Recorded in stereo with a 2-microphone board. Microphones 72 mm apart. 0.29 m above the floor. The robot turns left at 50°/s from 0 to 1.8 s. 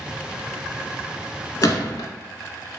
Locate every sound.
1.6 s a gunshot: 55° left (ahead or behind), 0.6 m; by 2.1 s 65° left (ahead or behind), 0.6 m